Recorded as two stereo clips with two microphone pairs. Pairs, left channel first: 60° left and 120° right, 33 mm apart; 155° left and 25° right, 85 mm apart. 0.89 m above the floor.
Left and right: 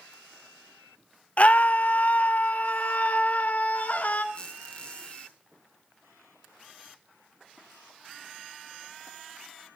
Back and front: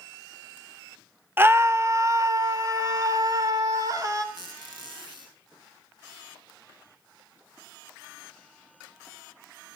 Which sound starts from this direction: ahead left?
A scream, at 1.4 s.